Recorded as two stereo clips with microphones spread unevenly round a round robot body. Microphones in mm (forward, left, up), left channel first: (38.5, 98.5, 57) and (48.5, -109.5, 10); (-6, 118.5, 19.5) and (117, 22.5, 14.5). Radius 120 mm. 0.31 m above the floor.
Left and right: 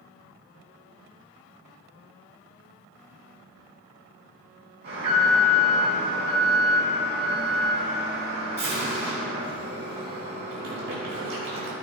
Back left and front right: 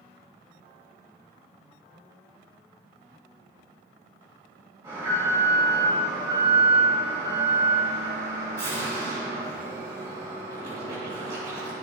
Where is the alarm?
110° right, 3.5 m.